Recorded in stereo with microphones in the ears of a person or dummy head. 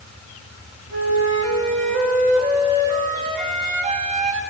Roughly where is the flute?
Right.